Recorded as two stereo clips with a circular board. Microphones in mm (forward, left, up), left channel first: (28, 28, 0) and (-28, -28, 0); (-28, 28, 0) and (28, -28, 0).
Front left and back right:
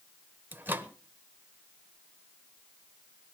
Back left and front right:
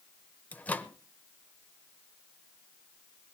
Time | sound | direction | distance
0.5 | a microwave | 170° right | 0.9 m